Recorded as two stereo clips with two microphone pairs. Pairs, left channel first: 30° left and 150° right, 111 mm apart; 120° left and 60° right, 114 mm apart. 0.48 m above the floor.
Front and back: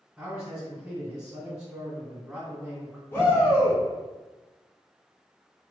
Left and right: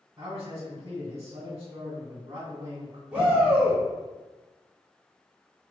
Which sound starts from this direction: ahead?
A shout, at 3.1 s.